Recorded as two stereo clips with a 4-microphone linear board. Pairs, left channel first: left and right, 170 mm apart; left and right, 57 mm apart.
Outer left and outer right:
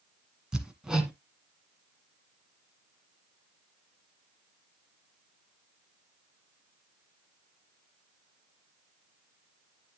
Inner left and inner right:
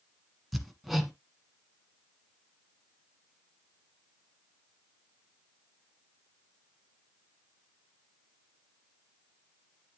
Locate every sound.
0.5 s hammering: 5° right (ahead or behind), 1.5 m